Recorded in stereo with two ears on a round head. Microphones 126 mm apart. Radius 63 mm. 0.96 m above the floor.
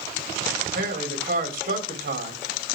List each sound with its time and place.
0.7 s a man speaking: 70° right (ahead or behind), 3 m